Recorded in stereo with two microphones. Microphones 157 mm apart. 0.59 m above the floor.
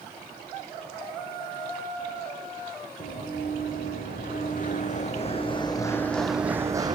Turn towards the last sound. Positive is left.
turn(degrees=-25)  # may be behind; listen again after turning